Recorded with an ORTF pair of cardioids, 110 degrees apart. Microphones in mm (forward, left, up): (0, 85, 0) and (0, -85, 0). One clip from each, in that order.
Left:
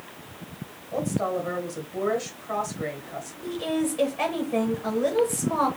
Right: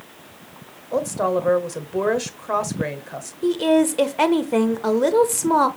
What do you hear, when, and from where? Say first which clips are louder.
0.9 s a woman speaking: right 6 dB; 60° right, 1.1 m
3.4 s a woman speaking: right 10 dB; 60° right, 1.0 m